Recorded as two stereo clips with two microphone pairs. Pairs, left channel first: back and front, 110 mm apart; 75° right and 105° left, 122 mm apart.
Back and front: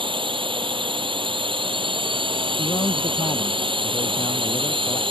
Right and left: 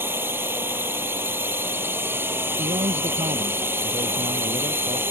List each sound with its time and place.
0.0 s a drone: 30° left
2.6 s a man speaking: 135° left